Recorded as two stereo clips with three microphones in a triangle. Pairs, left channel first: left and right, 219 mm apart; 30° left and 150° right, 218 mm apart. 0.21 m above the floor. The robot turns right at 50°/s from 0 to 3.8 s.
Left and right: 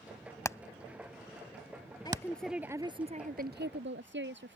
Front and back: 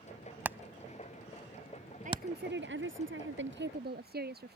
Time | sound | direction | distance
0.5 | hammering | 140° left | ?
2.0 | a woman speaking | 160° left | ?